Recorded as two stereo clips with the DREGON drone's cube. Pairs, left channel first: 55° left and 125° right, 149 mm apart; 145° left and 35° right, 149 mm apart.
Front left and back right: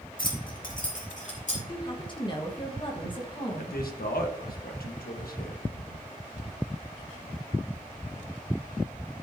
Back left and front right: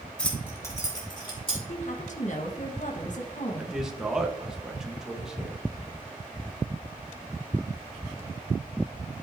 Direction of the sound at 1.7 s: 110° left.